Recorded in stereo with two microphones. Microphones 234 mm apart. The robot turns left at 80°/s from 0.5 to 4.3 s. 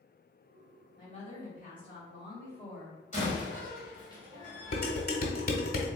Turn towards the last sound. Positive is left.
turn(degrees=45)  # may be behind; listen again after turning